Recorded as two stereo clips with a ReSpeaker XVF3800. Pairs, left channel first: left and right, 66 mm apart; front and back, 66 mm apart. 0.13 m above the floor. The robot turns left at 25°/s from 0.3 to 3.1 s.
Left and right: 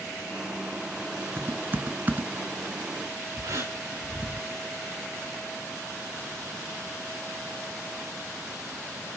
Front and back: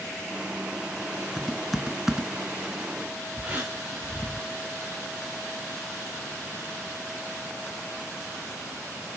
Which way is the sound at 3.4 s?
110° right.